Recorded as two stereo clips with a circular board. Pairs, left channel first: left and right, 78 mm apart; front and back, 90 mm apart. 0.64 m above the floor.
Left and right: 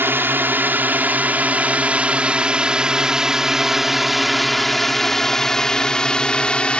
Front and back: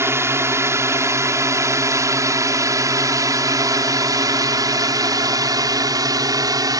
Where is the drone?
135° right; by 6.8 s 160° left.